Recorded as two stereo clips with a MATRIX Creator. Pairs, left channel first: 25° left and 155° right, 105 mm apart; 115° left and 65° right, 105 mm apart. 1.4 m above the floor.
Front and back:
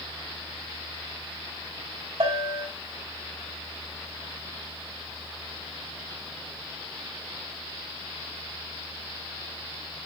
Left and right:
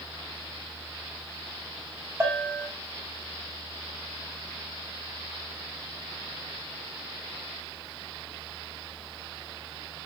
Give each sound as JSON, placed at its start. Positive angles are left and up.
{"t": 2.2, "sound": "a bell", "azimuth_deg": -130, "distance_m": 2.5}